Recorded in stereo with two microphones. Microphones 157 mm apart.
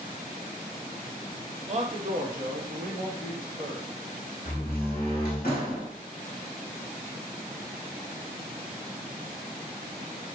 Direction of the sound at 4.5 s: 70° left (ahead or behind).